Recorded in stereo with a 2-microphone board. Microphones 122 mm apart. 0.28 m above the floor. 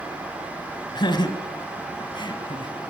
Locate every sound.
0.9 s laughter: 40° left (ahead or behind), 2.5 m